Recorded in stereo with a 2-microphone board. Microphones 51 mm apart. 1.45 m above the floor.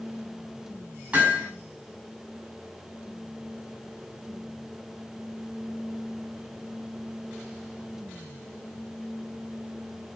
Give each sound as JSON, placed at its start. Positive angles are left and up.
{"t": 1.1, "sound": "hammering", "side_deg": -30, "distance_m": 7.0}